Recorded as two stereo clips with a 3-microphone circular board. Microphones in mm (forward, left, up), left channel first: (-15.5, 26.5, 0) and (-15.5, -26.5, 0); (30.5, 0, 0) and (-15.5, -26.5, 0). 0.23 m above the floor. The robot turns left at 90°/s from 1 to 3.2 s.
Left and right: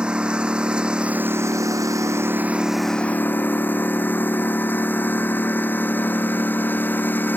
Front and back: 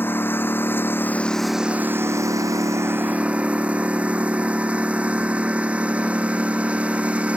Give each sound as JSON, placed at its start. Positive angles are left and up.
{"t": 0.0, "sound": "a lawn mower", "azimuth_deg": -15}